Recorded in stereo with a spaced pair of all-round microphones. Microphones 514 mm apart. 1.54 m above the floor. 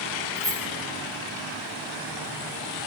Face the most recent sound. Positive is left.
turn(degrees=-30)  # may be behind; listen again after turning